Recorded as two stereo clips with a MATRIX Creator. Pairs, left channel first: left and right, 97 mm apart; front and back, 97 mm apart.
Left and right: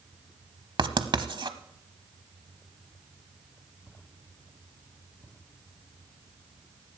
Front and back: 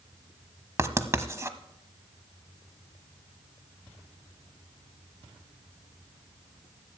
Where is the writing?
120° right, 0.8 m.